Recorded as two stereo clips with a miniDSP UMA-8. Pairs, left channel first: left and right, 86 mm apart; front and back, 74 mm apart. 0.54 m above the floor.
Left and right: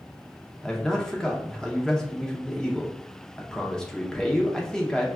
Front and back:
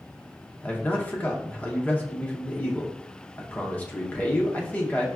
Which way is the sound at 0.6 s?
20° left.